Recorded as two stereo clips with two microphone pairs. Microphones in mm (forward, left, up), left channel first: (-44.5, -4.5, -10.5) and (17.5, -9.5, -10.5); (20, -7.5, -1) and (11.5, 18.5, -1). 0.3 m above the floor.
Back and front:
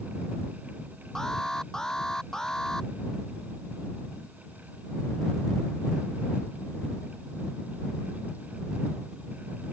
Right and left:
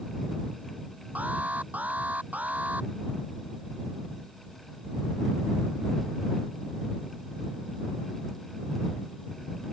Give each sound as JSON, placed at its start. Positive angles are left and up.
{"t": 1.1, "sound": "an alarm", "azimuth_deg": 90}